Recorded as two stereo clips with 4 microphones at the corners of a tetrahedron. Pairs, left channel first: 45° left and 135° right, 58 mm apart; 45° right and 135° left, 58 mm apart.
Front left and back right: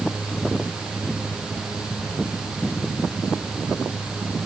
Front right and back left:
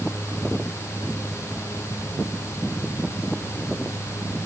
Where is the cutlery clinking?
I don't hear cutlery clinking.